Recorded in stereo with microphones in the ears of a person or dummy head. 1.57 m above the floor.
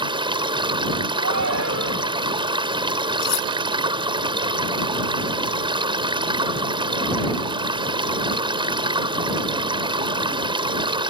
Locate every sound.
0.0 s running water: 25° right (ahead or behind)
1.1 s a shout: 90° right
3.2 s cutlery clinking: 60° left (ahead or behind)